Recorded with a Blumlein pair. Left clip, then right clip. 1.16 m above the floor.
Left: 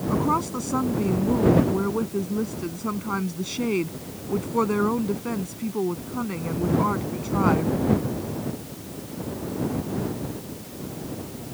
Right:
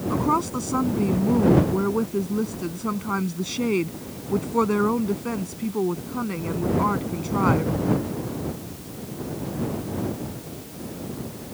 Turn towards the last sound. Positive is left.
turn(degrees=-5)